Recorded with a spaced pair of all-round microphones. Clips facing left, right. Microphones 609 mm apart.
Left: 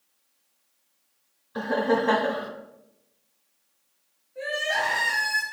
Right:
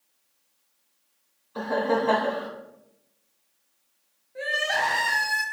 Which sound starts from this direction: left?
Laughter, at 1.6 s.